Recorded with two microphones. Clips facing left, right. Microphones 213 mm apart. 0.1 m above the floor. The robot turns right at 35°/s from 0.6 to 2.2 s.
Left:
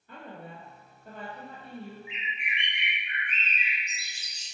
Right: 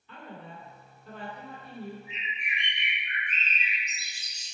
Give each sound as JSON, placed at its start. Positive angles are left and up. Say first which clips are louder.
{"t": 0.1, "sound": "a woman speaking", "louder": "left 1 dB", "azimuth_deg": 100, "distance_m": 1.8}
{"t": 2.1, "sound": "a bird", "louder": "left 1 dB", "side_deg": 10, "distance_m": 1.8}